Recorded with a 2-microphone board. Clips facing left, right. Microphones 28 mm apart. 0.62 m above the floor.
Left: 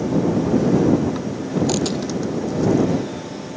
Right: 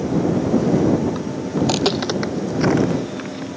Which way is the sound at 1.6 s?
15° right (ahead or behind).